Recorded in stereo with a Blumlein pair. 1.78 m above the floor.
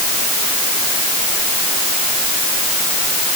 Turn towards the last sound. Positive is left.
No sound to turn to.